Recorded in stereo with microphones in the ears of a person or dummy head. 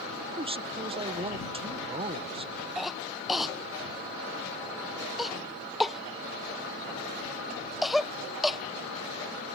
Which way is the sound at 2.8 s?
Centre (ahead or behind).